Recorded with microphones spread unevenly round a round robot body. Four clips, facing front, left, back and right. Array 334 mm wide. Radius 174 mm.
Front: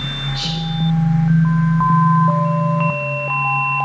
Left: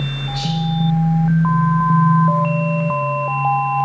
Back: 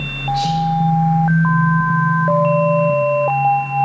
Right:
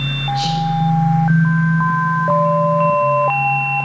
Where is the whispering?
130° left, 4.5 m.